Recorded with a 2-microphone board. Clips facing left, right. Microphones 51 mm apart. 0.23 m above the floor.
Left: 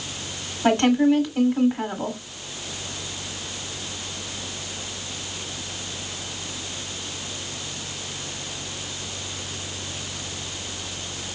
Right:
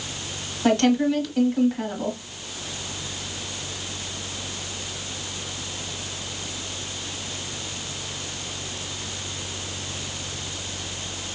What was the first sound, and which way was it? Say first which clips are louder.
A woman speaking: left 2 dB; 20° left (ahead or behind).